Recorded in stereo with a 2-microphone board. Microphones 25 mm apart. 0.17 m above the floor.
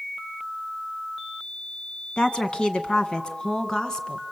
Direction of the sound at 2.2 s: 35° left (ahead or behind).